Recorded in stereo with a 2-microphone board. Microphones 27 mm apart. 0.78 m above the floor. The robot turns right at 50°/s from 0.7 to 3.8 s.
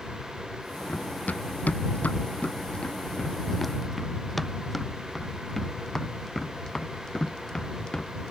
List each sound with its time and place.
0.9 s running footsteps: 50° left (ahead or behind); by 8.3 s 30° left (ahead or behind)